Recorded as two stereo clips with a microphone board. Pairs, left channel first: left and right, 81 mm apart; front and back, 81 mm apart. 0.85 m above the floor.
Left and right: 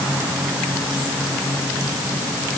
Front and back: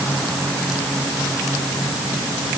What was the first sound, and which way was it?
Only background noise.